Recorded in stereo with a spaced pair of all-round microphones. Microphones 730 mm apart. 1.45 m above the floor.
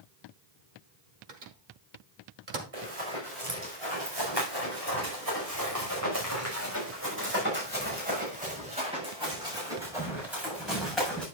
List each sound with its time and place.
1.3 s a microwave: 65° right (ahead or behind), 1.4 m
2.7 s running footsteps: 45° right (ahead or behind), 5.5 m; by 11.2 s centre (ahead or behind), 7.5 m